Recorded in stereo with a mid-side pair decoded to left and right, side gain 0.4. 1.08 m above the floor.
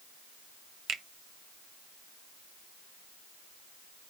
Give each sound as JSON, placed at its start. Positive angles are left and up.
{"t": 0.9, "sound": "a finger snap", "azimuth_deg": -65, "distance_m": 0.8}